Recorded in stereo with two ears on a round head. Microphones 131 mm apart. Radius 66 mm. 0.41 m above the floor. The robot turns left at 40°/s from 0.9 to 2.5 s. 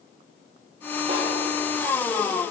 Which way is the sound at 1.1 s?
35° right (ahead or behind).